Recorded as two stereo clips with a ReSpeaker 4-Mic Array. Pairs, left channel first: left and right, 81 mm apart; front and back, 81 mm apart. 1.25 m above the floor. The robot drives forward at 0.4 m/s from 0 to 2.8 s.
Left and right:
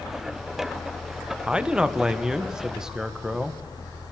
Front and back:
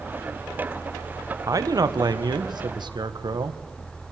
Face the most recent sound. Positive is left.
turn(degrees=-170)